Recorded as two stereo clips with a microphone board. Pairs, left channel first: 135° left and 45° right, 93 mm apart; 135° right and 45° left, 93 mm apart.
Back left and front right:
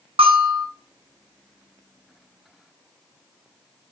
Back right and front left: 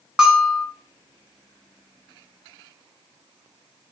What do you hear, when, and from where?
0.2 s a bell: 40° right, 1.6 m